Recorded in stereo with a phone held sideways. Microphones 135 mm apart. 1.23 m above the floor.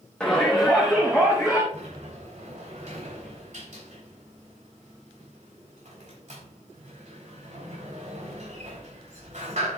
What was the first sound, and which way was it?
A shout, 10° left (ahead or behind).